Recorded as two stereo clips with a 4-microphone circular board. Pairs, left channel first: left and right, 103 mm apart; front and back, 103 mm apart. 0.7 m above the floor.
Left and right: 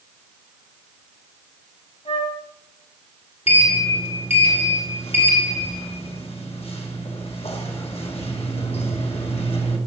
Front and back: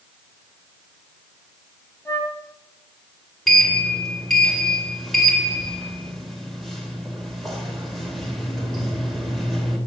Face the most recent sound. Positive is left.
turn(degrees=90)